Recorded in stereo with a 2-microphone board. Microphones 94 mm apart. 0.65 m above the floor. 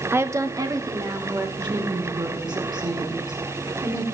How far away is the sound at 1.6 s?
About 1.7 m.